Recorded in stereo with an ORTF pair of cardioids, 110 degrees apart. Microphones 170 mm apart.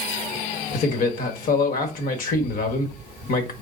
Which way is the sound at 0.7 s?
55° left.